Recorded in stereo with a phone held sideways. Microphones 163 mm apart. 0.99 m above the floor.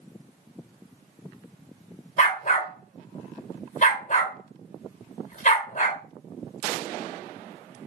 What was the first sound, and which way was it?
A dog barking, 50° left (ahead or behind).